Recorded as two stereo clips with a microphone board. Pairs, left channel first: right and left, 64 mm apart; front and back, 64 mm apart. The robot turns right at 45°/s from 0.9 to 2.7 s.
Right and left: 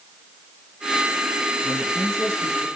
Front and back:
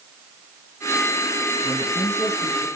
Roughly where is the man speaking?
Left.